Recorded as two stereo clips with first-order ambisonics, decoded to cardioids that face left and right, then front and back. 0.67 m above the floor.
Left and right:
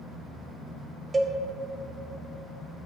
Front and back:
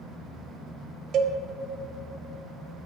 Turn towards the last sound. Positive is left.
turn(degrees=-155)